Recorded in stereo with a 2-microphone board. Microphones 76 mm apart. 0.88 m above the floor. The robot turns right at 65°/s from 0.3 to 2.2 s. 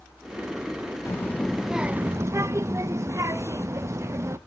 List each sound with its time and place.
1.1 s a child speaking: 145° left, 0.5 m; by 4.4 s 140° right, 0.5 m